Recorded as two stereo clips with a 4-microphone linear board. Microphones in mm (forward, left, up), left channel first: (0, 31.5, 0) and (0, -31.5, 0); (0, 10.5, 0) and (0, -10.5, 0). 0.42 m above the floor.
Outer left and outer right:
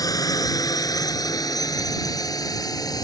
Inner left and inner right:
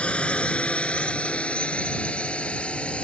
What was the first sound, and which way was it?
A drone, 75° left (ahead or behind).